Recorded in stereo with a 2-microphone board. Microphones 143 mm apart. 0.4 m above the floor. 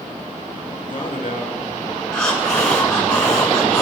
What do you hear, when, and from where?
0.8 s a man speaking: 65° left (ahead or behind), 4.5 m
2.1 s breathing: 5° left (ahead or behind), 5 m